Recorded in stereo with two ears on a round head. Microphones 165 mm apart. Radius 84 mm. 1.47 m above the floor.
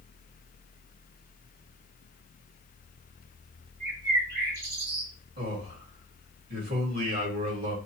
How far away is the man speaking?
About 1.7 m.